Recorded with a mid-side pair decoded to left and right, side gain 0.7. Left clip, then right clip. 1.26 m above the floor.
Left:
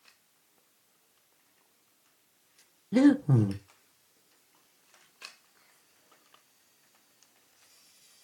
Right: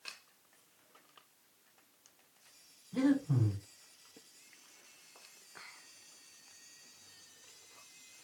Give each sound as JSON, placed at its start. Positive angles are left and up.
{"t": 2.9, "sound": "breathing", "azimuth_deg": 65, "distance_m": 0.9}